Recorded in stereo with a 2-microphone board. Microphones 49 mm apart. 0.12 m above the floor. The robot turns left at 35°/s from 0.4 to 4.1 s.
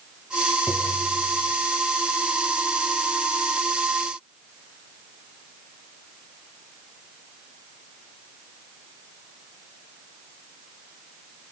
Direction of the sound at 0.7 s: 55° left (ahead or behind).